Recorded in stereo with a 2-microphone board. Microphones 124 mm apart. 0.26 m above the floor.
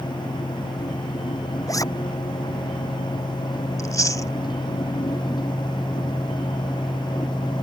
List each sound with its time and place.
1.7 s a zipper: 30° left (ahead or behind)
3.8 s chewing: 30° left (ahead or behind)